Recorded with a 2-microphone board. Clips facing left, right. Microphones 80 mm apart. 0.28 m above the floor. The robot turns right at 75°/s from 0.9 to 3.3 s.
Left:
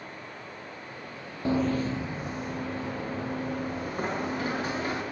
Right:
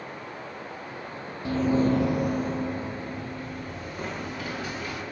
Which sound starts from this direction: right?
Running water, at 0.0 s.